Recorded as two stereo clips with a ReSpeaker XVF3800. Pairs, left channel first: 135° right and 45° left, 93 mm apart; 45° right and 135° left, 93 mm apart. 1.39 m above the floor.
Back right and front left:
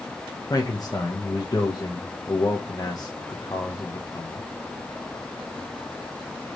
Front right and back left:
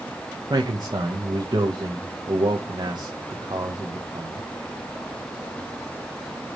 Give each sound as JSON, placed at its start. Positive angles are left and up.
{"t": 0.5, "sound": "a man speaking", "azimuth_deg": 175, "distance_m": 1.5}